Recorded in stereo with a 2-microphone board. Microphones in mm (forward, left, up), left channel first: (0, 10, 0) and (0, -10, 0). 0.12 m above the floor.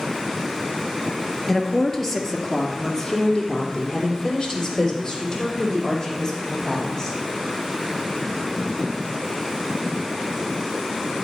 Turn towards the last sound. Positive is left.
turn(degrees=15)  # may be behind; listen again after turning